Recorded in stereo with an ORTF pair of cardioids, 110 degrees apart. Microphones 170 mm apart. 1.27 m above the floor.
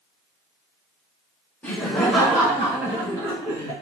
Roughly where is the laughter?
Ahead.